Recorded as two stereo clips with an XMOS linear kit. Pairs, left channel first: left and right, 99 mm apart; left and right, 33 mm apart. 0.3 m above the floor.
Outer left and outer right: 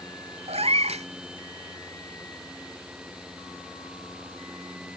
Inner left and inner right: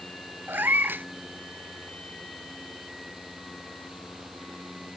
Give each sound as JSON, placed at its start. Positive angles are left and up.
{"t": 0.5, "sound": "a cat meowing", "side_deg": -80, "distance_m": 0.8}